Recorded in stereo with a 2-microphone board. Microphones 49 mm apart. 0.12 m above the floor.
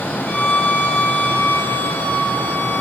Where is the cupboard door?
No cupboard door in this recording.